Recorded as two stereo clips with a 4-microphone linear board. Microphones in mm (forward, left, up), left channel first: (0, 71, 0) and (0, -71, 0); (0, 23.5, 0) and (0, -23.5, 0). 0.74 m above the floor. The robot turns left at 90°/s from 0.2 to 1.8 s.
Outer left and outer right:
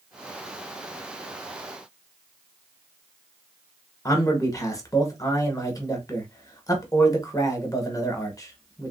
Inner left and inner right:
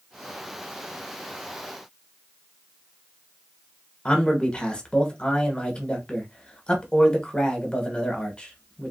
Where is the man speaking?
25° left (ahead or behind), 0.9 m.